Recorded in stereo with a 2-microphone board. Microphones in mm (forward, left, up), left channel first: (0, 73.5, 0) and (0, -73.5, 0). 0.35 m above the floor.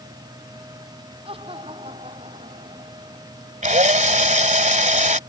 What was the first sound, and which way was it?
Laughter, 40° right (ahead or behind).